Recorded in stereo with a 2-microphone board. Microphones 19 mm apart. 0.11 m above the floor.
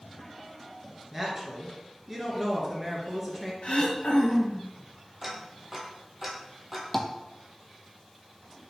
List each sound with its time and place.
1.1 s a woman speaking: 15° right (ahead or behind), 1.3 m
3.6 s throat clearing: 80° left, 1.1 m
5.2 s ticking: 10° right (ahead or behind), 1.1 m
6.9 s tapping: 10° left (ahead or behind), 0.6 m